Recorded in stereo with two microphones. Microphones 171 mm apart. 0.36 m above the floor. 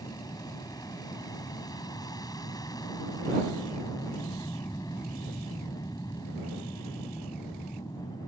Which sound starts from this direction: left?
An aircraft, at 0.0 s.